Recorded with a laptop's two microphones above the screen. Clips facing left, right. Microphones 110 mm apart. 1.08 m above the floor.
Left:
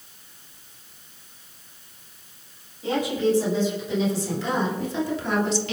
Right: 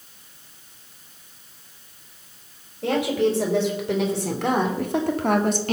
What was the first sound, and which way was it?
A woman speaking, 70° right (ahead or behind).